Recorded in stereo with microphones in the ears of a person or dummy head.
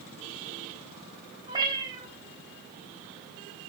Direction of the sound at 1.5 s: 20° right (ahead or behind).